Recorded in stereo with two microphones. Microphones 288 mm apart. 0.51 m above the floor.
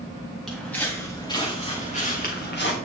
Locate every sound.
0.5 s footsteps: centre (ahead or behind), 2.5 m; by 2.8 s 40° left (ahead or behind), 2.5 m